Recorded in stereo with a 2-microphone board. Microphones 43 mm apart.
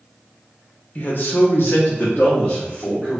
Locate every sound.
0.9 s a man speaking: 40° left (ahead or behind), 0.6 m